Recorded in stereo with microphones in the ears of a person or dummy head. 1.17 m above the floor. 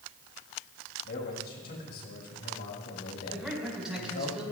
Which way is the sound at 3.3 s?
Centre (ahead or behind).